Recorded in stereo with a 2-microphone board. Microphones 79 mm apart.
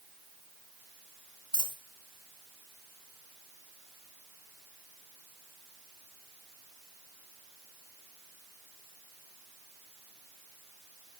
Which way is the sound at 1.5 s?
75° right (ahead or behind).